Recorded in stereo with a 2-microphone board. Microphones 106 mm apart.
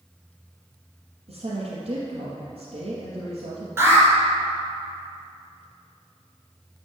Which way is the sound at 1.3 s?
60° right (ahead or behind).